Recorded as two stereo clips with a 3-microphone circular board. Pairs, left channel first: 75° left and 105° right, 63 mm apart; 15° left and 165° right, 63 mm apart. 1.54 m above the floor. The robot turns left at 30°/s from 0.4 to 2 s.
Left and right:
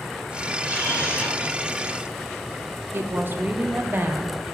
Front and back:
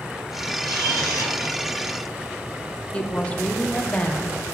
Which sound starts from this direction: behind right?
A camera shutter, at 0.6 s.